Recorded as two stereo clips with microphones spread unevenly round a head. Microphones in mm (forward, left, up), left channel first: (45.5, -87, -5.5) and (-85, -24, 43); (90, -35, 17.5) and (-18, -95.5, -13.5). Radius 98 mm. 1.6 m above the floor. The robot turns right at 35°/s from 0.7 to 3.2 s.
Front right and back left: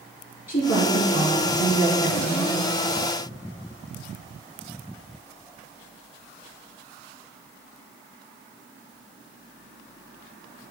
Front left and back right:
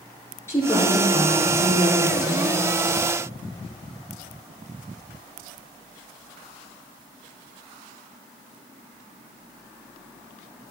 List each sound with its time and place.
0.5 s a woman speaking: 45° right, 3 m; by 2.7 s 25° left, 3 m